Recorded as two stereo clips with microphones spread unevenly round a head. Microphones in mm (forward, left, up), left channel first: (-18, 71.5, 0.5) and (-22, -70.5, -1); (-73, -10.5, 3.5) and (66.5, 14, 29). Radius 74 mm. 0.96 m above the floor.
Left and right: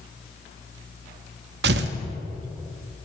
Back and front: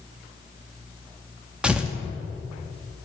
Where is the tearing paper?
70° right, 0.7 m.